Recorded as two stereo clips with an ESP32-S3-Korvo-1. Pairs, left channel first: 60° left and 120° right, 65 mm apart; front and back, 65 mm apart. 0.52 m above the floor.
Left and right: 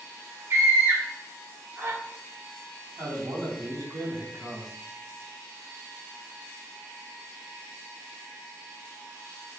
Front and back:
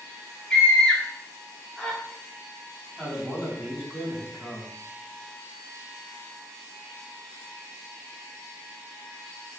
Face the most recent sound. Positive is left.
turn(degrees=-105)